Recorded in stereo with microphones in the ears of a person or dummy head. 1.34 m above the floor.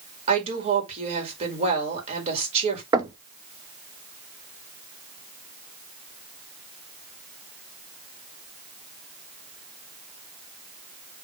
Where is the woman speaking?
45° right (ahead or behind), 2.5 m.